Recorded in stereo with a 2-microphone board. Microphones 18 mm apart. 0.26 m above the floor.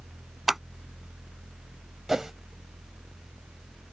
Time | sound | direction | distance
0.5 | scissors | 20° right (ahead or behind) | ?
2.1 | a whoosh | 30° right (ahead or behind) | ?